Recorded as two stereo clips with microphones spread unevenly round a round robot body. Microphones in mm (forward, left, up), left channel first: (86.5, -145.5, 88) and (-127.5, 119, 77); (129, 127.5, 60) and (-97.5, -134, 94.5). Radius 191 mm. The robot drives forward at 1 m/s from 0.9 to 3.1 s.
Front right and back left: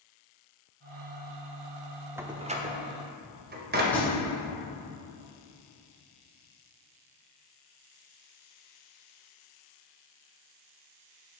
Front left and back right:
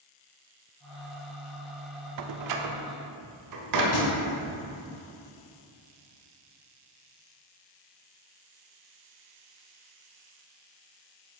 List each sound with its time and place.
2.2 s a door slam: 150° right, 0.6 m; by 3.8 s 170° right, 1.4 m
3.9 s a thud: 35° left, 3 m